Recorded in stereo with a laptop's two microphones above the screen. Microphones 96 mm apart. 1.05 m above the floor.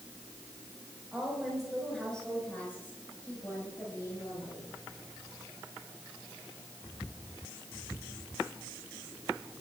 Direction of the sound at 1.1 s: 10° right (ahead or behind).